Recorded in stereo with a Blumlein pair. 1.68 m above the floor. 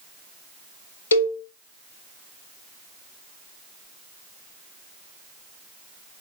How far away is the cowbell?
About 1.4 m.